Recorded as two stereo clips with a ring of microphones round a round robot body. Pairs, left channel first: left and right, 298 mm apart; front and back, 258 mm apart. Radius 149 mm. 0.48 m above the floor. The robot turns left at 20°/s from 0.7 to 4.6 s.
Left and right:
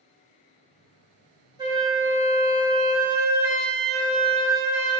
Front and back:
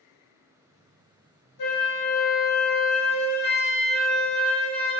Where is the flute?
20° right, 0.6 m; by 5.0 s 80° right, 0.6 m.